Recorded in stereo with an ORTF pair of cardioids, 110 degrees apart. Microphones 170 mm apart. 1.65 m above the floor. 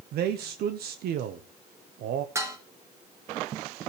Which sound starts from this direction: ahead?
Dishes clattering, at 2.4 s.